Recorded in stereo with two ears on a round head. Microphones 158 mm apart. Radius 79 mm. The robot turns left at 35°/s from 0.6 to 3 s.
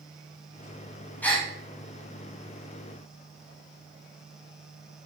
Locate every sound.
1.2 s a gasp: 10° left (ahead or behind), 1.3 m; by 1.5 s centre (ahead or behind), 1.3 m